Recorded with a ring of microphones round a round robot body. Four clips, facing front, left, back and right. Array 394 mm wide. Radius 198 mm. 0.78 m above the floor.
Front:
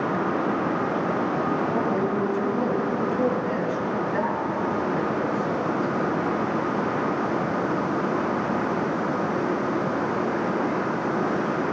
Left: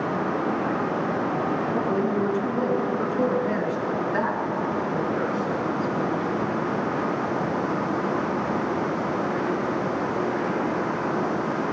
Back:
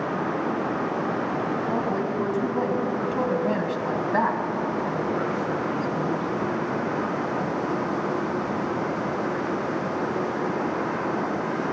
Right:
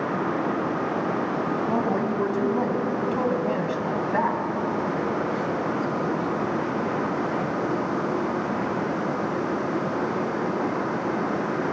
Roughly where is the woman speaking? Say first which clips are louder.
Even, front 2 dB; right.